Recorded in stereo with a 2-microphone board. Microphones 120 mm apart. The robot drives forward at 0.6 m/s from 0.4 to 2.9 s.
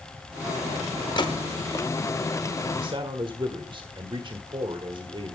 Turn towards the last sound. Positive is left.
turn(degrees=-45)  # may be behind; listen again after turning